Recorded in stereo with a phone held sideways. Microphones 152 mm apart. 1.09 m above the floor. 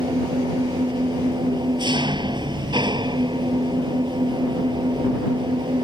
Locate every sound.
0.0 s an engine running: 30° right (ahead or behind)